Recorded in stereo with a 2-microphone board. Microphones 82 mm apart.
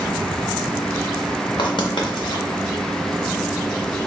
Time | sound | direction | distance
1.6 | writing | 65° left (ahead or behind) | 0.6 m